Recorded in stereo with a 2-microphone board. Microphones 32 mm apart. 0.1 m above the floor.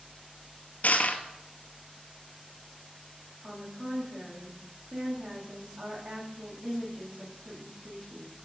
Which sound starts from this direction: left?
Crushing, at 0.8 s.